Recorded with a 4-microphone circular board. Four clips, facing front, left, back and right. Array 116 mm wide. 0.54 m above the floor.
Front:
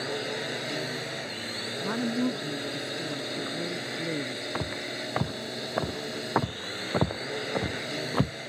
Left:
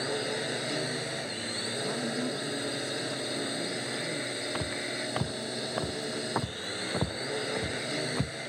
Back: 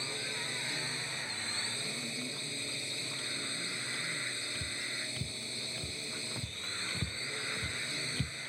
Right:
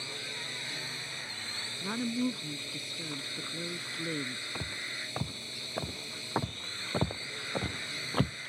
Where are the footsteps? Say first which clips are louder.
Left 8 dB, front 10 dB; 15° left; by 8.4 s 25° right.